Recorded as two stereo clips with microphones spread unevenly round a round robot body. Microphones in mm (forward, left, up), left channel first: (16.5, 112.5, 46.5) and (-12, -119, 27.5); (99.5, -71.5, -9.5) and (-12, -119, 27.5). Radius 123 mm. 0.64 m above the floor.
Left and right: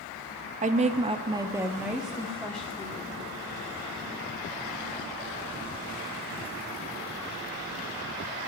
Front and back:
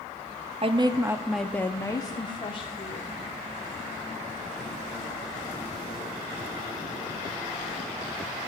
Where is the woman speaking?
120° right, 0.7 m; by 3.2 s straight ahead, 1.7 m.